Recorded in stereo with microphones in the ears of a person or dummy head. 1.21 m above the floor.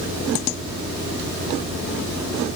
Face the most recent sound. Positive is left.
No sound to turn to.